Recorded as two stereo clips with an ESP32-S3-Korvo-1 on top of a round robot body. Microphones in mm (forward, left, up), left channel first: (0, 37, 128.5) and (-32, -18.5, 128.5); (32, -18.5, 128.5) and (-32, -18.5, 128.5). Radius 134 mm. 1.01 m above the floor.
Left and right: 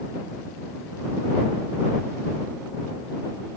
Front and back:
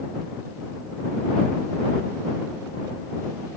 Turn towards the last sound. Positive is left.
No sound to turn to.